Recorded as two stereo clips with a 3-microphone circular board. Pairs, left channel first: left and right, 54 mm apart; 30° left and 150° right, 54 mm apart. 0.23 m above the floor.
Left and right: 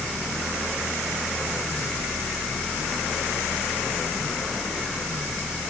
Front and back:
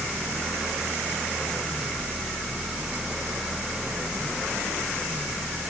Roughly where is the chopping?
No chopping in this recording.